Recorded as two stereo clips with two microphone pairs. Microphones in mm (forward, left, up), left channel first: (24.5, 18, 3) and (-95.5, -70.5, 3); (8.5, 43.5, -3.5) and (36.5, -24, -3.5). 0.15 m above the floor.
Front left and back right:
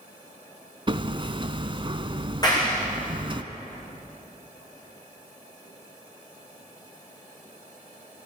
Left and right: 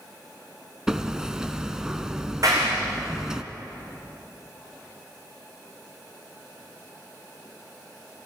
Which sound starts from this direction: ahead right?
A clap, at 2.4 s.